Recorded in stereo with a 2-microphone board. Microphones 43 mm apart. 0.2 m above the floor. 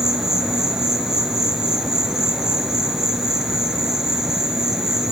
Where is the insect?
10° right (ahead or behind), 0.8 m.